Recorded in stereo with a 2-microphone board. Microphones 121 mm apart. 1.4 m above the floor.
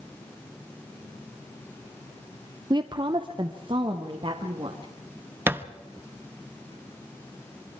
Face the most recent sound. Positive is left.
turn(degrees=-15)  # may be behind; listen again after turning